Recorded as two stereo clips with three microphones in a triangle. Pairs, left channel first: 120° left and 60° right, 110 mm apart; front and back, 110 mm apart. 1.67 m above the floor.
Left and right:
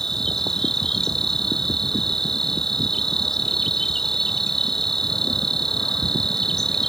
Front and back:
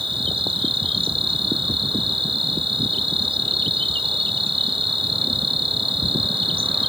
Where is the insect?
155° right.